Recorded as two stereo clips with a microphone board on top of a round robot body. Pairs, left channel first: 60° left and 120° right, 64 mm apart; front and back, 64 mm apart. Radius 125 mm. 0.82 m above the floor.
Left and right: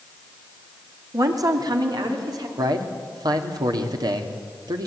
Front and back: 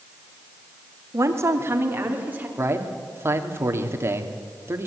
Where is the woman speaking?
145° right, 2.5 m; by 2.5 s 115° right, 4 m.